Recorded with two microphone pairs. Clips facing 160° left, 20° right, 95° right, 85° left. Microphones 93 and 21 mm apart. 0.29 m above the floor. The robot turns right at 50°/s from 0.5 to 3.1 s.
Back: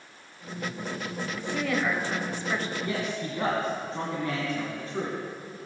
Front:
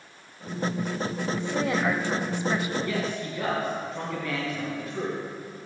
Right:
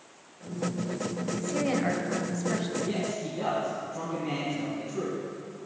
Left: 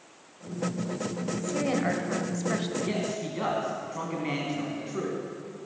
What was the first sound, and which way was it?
A woman speaking, 20° right.